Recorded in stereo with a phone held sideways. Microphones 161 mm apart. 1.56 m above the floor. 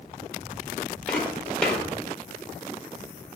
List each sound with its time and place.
1.1 s footsteps: 5° left (ahead or behind), 2 m